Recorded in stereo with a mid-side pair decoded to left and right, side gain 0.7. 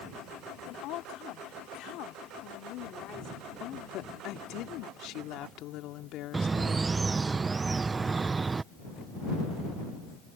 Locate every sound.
0.7 s a woman speaking: 60° left
3.6 s a woman speaking: 55° left
6.3 s a bird: 20° right